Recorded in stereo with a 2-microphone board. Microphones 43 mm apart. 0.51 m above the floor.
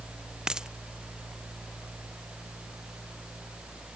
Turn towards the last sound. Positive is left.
turn(degrees=-20)  # may be behind; listen again after turning